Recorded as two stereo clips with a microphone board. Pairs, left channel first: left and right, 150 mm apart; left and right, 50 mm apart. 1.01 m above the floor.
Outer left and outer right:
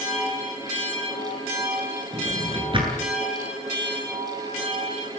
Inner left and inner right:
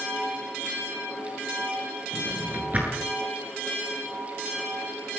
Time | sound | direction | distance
2.1 | a drawer | 35° right (ahead or behind) | 9.5 m